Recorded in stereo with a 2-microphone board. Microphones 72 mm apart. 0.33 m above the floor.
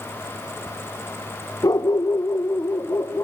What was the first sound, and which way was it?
A dog barking, 50° left (ahead or behind).